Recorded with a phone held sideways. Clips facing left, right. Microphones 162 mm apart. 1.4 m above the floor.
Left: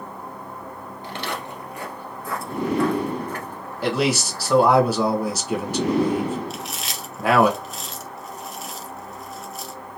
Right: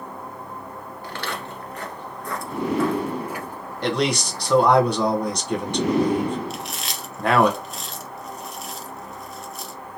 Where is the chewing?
Centre (ahead or behind), 0.6 m.